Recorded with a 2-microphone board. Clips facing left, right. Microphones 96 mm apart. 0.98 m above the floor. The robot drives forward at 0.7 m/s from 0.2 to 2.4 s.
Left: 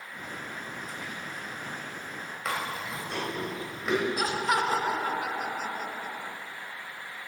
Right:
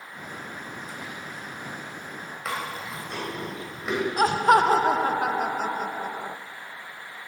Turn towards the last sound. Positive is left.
turn(degrees=-45)  # may be behind; listen again after turning